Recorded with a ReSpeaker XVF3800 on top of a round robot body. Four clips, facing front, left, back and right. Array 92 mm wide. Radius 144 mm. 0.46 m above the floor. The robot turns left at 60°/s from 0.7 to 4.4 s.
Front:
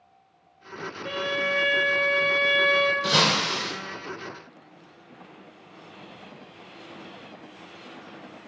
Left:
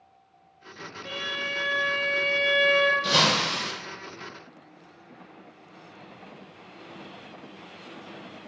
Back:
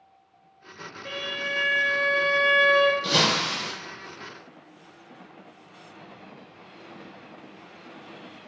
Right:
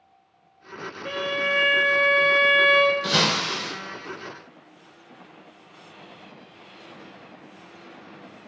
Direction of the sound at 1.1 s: 90° right.